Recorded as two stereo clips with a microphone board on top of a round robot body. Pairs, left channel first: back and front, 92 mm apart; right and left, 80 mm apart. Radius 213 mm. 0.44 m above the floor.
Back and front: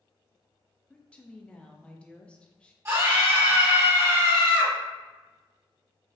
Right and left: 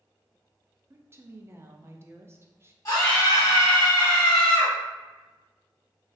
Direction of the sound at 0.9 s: 110° left.